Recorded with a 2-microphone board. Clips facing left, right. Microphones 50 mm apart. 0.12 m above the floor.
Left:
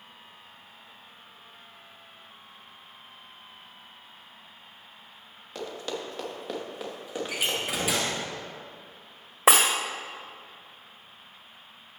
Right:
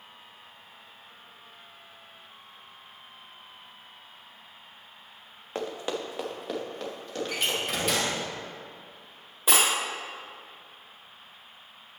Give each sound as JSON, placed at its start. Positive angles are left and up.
{"t": 5.5, "sound": "running footsteps", "side_deg": -40, "distance_m": 1.6}
{"t": 7.3, "sound": "a door slam", "side_deg": 10, "distance_m": 2.0}
{"t": 9.5, "sound": "breaking glass", "side_deg": 85, "distance_m": 1.4}